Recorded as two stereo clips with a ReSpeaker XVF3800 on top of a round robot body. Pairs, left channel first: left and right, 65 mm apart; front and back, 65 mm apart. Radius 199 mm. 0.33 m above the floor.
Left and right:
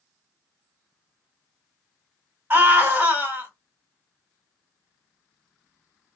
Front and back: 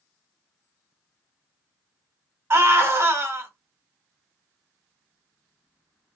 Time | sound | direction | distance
2.5 | a scream | 140° right | 2 m